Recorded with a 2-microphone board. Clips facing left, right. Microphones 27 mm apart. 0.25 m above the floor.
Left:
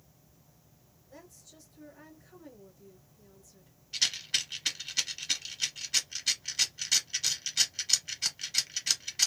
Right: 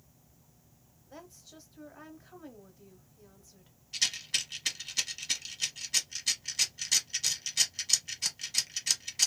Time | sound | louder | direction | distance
1.1 | a woman speaking | right 3 dB | 35° right (ahead or behind) | 1.0 m
3.9 | a rattle | left 1 dB | 10° left (ahead or behind) | 1.2 m